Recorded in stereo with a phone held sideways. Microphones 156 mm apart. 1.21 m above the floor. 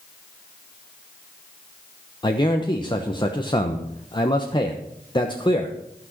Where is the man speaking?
30° left (ahead or behind), 1.1 m.